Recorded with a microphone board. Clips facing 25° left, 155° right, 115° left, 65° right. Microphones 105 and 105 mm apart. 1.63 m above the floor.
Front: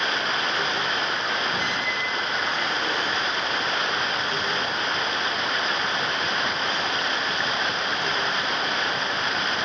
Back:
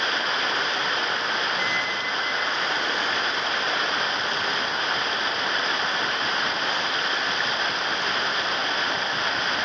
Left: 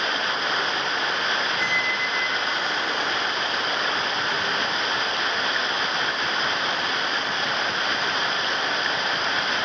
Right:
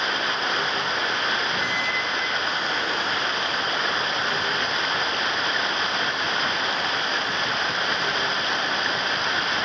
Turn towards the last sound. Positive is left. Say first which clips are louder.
# even, even
turn(degrees=0)